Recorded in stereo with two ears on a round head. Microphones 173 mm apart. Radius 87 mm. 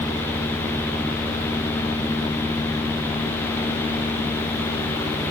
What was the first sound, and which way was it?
Only background noise.